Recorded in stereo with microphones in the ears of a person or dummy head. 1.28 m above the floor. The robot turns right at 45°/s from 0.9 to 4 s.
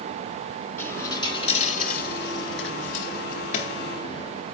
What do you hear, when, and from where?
0.8 s a dropped coin: 20° left, 3.5 m; by 4.4 s 160° left, 3.5 m